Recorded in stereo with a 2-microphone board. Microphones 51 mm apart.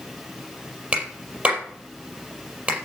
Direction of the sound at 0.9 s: 30° right (ahead or behind).